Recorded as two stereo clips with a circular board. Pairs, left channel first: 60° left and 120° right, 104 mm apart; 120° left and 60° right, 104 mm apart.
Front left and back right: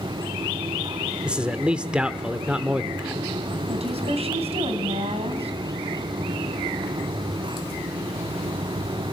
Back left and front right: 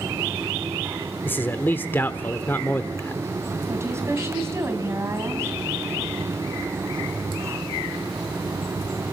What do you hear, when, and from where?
1.2 s a man speaking: 170° left, 0.9 m
3.7 s a woman speaking: 125° right, 3.5 m